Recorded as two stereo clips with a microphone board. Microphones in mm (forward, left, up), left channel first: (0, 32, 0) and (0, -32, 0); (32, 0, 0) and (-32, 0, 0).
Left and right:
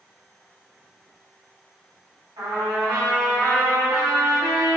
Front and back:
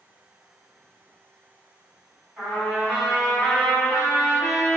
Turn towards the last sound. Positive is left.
turn(degrees=-105)